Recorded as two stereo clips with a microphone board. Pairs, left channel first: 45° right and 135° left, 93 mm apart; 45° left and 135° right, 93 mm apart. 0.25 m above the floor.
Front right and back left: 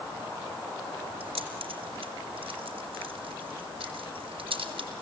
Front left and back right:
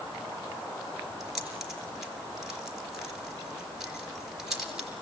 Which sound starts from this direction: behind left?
Keys jangling, at 1.2 s.